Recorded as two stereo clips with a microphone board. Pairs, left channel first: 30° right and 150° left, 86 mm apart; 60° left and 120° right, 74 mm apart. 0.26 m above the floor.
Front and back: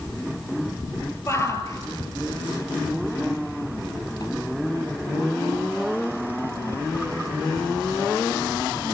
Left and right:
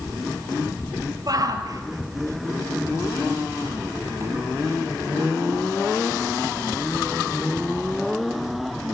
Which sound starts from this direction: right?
A shout, at 1.3 s.